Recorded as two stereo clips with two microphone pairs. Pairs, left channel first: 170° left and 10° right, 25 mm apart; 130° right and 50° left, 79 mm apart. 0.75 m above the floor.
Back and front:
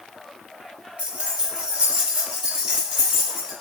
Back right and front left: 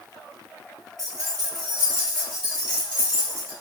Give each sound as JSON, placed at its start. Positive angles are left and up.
{"t": 1.0, "sound": "keys jangling", "azimuth_deg": 5, "distance_m": 0.8}